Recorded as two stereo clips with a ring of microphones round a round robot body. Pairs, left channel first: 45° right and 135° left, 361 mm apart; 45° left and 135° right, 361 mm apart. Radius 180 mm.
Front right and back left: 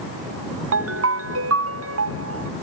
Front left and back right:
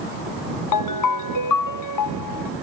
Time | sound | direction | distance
0.7 | a ringtone | 80° left | ?